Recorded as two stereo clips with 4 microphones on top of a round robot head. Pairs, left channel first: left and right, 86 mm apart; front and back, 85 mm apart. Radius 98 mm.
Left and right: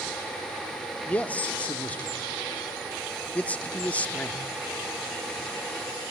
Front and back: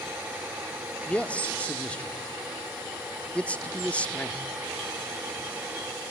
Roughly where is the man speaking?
Ahead left.